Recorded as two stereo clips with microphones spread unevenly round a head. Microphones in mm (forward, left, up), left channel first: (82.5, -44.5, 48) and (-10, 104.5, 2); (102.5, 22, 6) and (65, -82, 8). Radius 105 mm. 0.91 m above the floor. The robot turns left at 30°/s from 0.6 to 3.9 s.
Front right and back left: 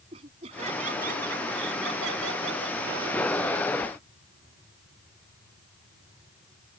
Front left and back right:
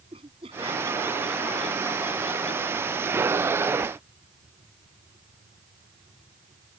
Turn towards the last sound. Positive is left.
turn(degrees=85)